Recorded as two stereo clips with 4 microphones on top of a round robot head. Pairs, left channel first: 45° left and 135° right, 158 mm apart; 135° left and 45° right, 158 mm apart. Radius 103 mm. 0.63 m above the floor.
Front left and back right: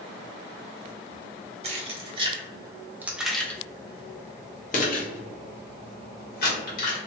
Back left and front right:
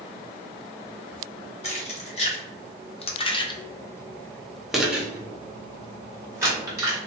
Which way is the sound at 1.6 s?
Straight behind.